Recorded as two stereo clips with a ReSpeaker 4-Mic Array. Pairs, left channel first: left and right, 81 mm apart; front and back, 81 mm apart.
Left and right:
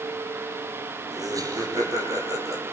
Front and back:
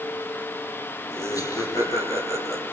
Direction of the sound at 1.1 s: 45° right.